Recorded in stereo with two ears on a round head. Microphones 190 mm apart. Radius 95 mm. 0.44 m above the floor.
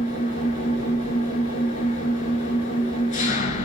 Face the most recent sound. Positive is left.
turn(degrees=35)  # may be behind; listen again after turning